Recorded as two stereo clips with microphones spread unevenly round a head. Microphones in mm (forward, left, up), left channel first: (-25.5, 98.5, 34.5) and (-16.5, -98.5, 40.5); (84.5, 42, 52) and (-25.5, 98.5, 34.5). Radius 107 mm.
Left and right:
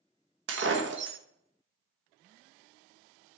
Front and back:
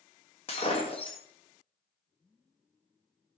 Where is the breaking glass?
75° right, 1.2 m.